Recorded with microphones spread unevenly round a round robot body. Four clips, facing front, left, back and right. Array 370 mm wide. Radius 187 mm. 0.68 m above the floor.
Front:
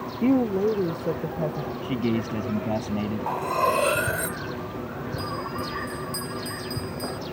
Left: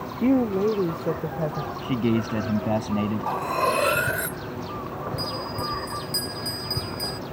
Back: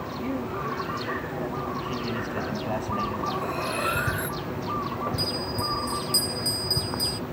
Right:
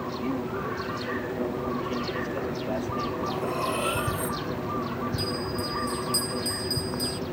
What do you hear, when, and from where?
0.2 s a woman speaking: 45° left; by 1.7 s 60° left
1.8 s a man speaking: 70° left
3.3 s cutlery clinking: 50° left
5.2 s a bell: 155° left